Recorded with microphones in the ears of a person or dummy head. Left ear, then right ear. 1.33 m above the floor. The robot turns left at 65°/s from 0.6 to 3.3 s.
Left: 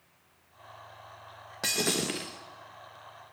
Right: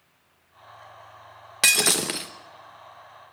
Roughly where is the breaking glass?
Right.